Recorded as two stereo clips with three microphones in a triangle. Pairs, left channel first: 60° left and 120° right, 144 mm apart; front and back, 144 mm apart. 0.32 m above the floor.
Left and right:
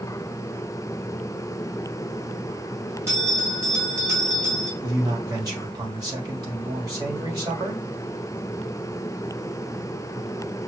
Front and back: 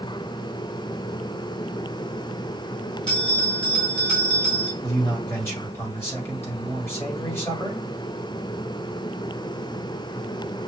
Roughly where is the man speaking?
Right.